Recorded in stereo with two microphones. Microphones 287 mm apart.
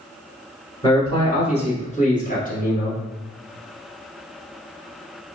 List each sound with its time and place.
0.8 s a man speaking: 15° left (ahead or behind), 1.3 m; by 3.0 s 30° left (ahead or behind), 1.6 m